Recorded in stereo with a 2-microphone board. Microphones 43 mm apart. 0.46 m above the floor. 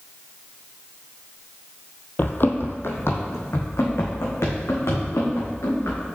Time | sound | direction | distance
2.2 | running footsteps | 50° left (ahead or behind) | 0.7 m